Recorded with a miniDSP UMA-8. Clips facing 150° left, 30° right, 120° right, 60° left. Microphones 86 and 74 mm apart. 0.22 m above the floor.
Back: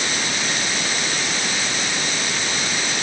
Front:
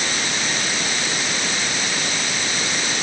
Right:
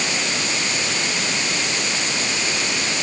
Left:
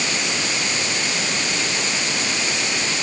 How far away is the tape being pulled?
I don't hear tape being pulled.